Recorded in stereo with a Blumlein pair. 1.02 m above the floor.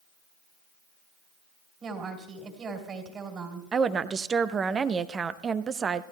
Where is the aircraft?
No aircraft in this recording.